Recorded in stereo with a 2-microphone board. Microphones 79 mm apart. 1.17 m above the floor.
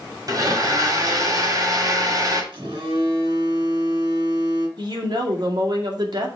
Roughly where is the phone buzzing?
Right.